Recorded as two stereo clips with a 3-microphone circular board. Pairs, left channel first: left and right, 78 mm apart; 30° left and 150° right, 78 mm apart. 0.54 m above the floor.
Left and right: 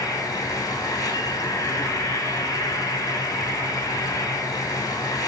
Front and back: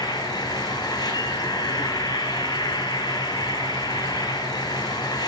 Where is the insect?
50° left, 2 m.